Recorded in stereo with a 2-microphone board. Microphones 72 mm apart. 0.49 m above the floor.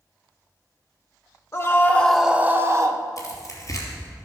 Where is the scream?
40° left (ahead or behind), 0.9 m; by 3.0 s 50° right (ahead or behind), 1.1 m.